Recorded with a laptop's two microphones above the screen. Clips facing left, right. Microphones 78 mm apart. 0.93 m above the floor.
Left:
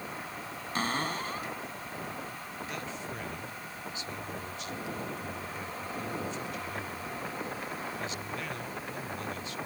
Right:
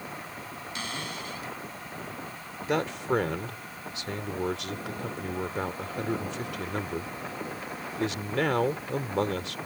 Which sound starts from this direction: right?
A man speaking, at 2.7 s.